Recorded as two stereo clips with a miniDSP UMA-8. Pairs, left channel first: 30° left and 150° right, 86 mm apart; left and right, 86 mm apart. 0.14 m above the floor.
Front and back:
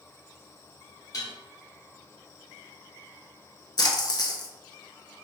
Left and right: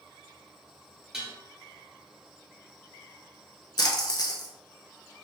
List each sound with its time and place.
1.1 s dishes clattering: 5° right, 1.4 m
3.8 s a splash: 60° left, 0.7 m